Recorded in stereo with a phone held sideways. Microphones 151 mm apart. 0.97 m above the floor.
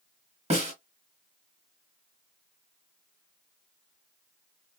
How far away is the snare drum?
About 1.5 m.